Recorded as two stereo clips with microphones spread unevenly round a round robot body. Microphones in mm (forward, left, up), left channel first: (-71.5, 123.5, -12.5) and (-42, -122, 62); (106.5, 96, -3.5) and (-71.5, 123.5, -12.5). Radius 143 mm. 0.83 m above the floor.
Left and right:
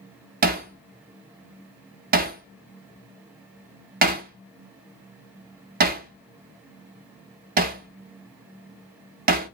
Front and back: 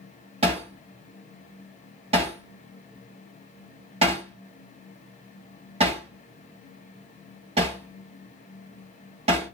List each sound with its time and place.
0.4 s hammering: 125° right, 0.6 m